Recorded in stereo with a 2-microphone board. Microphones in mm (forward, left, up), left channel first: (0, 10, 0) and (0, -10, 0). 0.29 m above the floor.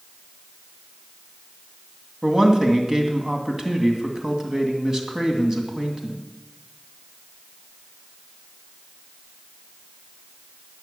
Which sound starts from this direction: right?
A man speaking, at 2.2 s.